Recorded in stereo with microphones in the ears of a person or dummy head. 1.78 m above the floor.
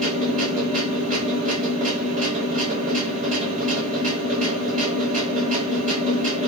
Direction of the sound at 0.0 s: 40° right (ahead or behind).